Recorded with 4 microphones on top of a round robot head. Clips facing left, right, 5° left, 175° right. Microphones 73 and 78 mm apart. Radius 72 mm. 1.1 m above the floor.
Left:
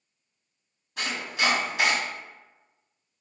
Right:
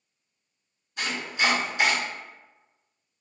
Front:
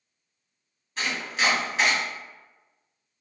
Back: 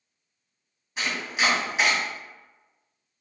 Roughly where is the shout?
I don't hear a shout.